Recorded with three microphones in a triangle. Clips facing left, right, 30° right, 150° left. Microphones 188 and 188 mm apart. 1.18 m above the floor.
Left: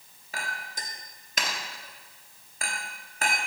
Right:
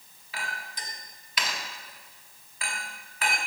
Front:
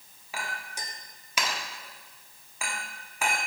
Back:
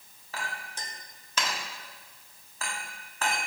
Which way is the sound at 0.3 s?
45° left.